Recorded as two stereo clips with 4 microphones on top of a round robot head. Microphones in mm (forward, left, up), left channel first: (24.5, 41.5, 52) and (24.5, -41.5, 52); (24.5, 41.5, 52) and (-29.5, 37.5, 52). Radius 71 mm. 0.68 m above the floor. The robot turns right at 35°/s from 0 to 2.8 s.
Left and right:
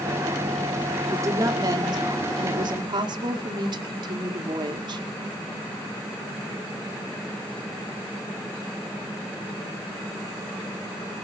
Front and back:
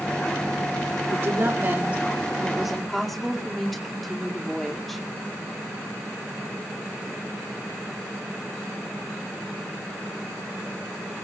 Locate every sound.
1.1 s a woman speaking: 145° right, 2 m; by 5.0 s 85° right, 2 m